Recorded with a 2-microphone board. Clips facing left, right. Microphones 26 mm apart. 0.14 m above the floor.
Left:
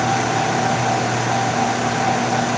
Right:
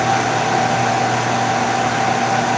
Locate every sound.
Only background noise.